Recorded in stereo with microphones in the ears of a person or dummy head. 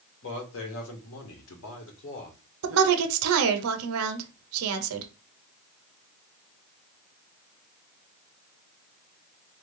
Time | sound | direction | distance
0.2 | a man speaking | 65° left (ahead or behind) | 1.3 m
2.6 | a woman speaking | 80° right | 0.7 m